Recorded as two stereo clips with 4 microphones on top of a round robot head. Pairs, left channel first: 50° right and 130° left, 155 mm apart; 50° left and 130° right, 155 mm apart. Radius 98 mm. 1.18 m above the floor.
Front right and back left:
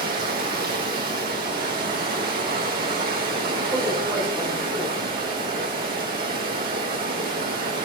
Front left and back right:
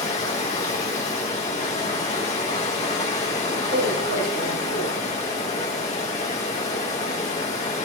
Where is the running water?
100° left, 3 m.